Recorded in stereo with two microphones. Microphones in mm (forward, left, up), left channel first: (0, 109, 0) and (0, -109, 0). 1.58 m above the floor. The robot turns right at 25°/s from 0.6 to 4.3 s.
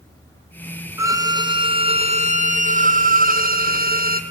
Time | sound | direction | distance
1.0 | a violin | 160° right | 0.9 m